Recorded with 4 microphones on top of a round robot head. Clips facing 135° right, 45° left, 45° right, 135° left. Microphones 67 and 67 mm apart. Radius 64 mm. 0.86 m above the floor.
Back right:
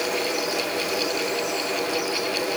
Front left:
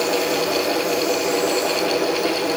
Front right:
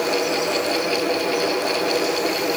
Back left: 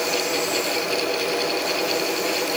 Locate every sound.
Only background noise.